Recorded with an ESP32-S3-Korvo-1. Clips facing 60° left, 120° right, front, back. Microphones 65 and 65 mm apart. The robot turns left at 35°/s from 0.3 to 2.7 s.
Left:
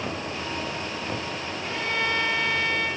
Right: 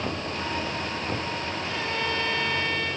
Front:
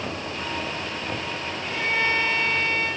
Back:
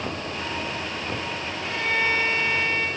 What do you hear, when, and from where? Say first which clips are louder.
1.6 s a violin: left 4 dB, even; 95° left, 4.5 m; by 2.9 s 60° left, 4.5 m